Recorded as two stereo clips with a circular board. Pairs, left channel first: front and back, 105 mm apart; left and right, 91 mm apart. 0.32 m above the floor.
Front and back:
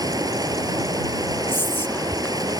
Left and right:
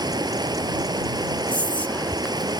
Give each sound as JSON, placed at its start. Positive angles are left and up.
{"t": 0.0, "sound": "running water", "azimuth_deg": -130}
{"t": 1.5, "sound": "whispering", "azimuth_deg": 35}